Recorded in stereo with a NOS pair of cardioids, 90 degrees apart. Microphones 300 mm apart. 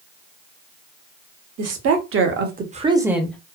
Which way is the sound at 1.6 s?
60° right.